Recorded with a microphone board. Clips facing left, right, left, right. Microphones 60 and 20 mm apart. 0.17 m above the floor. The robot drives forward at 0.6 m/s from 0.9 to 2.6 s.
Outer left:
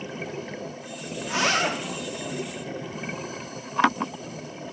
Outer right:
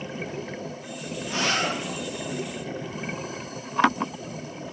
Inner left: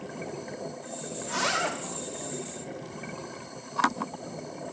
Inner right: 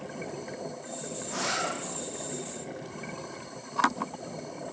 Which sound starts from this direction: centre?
A zipper, at 1.2 s.